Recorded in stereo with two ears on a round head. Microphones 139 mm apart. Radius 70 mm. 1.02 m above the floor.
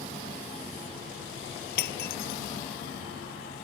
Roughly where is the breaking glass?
Left.